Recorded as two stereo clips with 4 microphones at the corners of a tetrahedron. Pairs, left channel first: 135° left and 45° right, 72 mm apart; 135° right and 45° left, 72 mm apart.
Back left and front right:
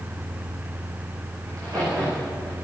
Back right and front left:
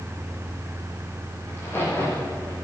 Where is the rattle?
No rattle in this recording.